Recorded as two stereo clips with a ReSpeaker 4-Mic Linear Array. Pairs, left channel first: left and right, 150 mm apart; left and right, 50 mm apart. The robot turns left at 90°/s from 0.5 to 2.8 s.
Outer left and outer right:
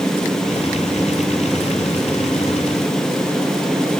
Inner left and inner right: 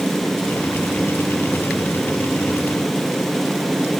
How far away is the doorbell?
I don't hear a doorbell.